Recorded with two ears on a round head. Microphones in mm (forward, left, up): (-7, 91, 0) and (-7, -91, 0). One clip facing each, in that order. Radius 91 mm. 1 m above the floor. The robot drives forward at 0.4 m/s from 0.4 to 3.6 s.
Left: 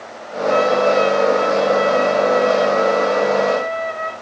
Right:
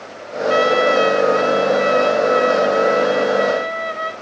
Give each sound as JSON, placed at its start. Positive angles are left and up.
{"t": 0.5, "sound": "a trumpet", "side_deg": -70, "distance_m": 3.0}